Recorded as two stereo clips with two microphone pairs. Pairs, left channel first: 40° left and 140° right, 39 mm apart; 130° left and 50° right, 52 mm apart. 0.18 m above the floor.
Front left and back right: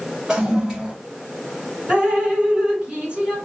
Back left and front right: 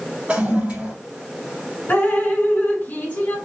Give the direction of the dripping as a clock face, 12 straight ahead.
7 o'clock.